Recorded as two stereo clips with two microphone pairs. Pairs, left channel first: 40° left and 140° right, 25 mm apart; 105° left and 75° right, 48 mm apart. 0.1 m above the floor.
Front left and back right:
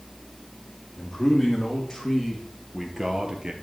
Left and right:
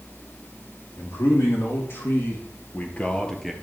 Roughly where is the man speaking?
Behind left.